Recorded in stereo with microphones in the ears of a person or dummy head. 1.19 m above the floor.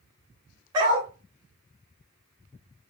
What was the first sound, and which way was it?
A dog barking, 25° right (ahead or behind).